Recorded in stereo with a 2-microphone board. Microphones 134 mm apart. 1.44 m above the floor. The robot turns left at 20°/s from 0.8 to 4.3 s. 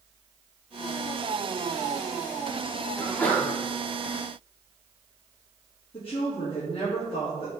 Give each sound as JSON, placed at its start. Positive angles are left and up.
{"t": 3.0, "sound": "a sneeze", "side_deg": 15, "distance_m": 1.5}
{"t": 5.9, "sound": "a woman speaking", "side_deg": 45, "distance_m": 2.0}